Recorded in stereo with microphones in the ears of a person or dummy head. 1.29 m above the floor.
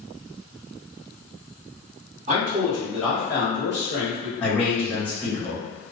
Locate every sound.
2.3 s a man speaking: 35° right (ahead or behind), 1.1 m; by 4.3 s 50° left (ahead or behind), 1.3 m
4.4 s a man speaking: 5° left (ahead or behind), 1.4 m